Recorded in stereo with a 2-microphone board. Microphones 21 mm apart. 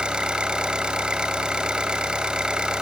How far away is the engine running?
About 1.8 m.